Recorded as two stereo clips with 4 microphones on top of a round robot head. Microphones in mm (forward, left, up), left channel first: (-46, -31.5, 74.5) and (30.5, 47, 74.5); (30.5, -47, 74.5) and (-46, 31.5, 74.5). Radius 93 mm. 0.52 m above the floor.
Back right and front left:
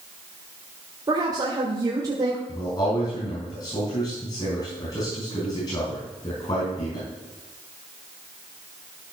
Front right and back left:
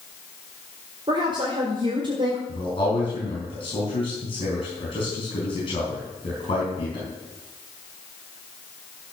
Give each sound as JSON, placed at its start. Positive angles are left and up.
{"t": 1.1, "sound": "a woman speaking", "azimuth_deg": 95, "distance_m": 1.8}
{"t": 2.5, "sound": "a man speaking", "azimuth_deg": -80, "distance_m": 5.5}